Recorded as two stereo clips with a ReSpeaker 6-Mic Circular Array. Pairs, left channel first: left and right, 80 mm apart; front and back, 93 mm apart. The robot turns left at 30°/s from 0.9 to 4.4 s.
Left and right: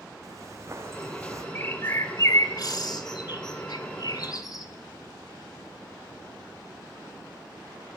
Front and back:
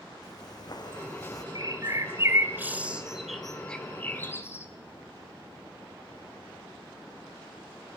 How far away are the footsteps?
About 4.5 m.